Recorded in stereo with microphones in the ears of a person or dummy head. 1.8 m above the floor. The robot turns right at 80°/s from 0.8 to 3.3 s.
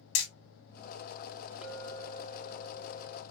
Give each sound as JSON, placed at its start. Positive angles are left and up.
{"t": 0.1, "sound": "hammering", "side_deg": 65, "distance_m": 1.8}
{"t": 1.6, "sound": "a clink", "azimuth_deg": -5, "distance_m": 3.0}